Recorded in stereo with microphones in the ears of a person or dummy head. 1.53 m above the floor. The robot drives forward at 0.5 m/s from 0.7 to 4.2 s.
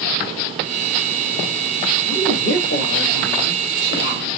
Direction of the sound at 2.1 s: 65° left (ahead or behind).